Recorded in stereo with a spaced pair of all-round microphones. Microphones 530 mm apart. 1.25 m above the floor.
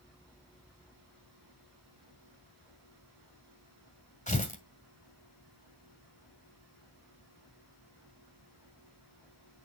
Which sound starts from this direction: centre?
Tearing paper, at 4.3 s.